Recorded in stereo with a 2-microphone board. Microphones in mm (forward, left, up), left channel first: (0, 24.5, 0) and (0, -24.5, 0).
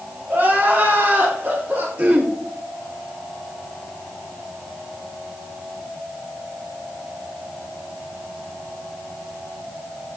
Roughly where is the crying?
Right.